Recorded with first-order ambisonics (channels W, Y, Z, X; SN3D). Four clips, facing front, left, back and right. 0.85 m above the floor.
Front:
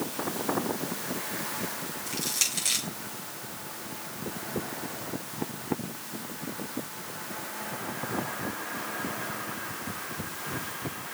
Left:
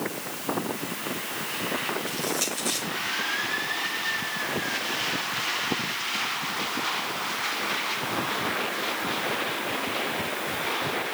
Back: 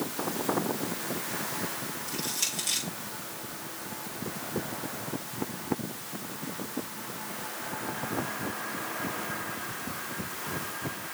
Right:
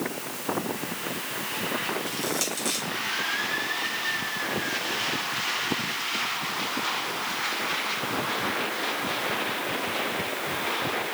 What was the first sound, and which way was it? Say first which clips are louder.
Crushing: even, front 3 dB; 15° right.